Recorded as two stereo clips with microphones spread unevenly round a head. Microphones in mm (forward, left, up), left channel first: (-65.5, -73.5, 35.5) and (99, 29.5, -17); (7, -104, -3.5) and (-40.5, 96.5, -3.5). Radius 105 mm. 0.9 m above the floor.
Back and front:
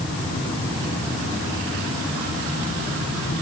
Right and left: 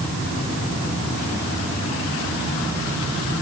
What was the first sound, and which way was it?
Only background noise.